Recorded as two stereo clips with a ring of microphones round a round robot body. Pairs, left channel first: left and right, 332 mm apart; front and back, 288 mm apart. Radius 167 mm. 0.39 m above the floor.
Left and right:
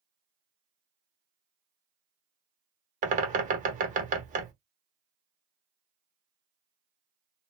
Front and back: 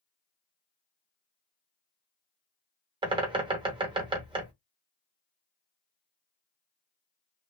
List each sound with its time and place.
3.0 s a bird: 125° right, 0.8 m